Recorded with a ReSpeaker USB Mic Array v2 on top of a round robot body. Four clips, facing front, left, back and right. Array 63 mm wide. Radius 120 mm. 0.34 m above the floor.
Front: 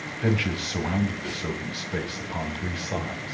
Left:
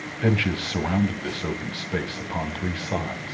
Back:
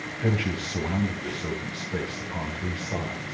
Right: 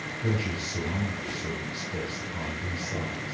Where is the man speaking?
75° left, 3.5 m.